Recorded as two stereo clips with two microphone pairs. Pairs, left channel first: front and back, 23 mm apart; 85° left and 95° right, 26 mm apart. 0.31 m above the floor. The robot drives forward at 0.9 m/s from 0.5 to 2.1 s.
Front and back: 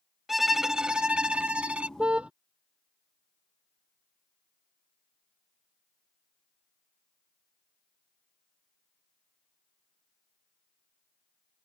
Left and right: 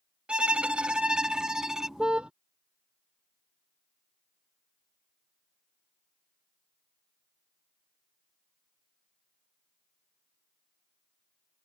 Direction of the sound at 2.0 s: 145° right.